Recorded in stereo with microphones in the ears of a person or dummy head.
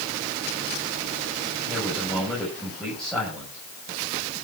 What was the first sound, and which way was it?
A man speaking, 5° left (ahead or behind).